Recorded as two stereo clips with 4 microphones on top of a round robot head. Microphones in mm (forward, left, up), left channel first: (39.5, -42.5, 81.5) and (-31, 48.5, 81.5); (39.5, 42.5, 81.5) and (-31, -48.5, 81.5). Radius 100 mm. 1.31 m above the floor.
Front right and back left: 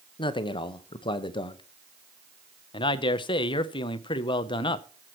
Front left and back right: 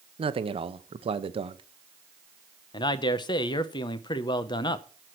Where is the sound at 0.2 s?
95° right, 0.8 m.